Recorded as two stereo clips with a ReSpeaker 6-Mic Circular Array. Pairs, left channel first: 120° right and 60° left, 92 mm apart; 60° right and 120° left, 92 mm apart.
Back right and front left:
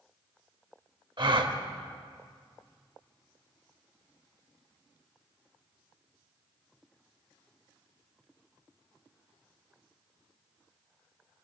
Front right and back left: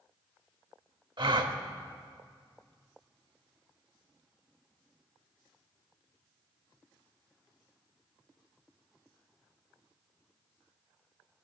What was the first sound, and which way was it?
A gasp, 90° left.